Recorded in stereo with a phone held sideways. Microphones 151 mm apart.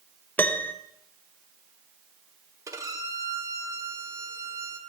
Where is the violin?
20° right (ahead or behind), 1.1 m.